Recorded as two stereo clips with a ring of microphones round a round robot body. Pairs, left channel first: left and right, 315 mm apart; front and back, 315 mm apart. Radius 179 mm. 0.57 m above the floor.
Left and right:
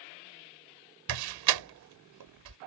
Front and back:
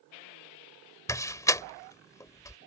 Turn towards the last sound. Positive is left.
turn(degrees=-80)